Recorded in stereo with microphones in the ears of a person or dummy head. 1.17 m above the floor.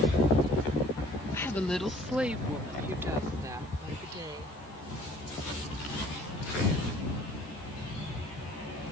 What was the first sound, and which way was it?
A woman speaking, 15° left (ahead or behind).